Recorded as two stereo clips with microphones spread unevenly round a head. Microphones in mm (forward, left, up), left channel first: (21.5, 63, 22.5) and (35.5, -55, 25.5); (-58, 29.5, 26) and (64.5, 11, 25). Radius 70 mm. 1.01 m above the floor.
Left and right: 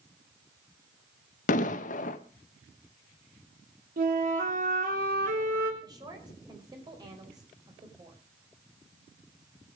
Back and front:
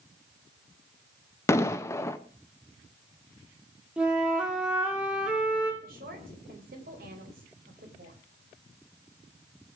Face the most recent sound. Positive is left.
turn(degrees=-25)